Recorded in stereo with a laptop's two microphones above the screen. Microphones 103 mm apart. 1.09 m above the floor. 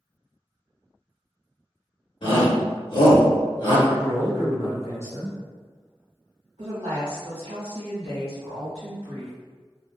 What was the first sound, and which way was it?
A shout, 55° left (ahead or behind).